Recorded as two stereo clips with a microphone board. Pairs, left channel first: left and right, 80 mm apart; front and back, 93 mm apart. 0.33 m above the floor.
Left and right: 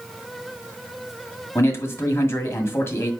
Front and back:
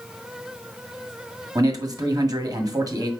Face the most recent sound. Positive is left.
turn(degrees=140)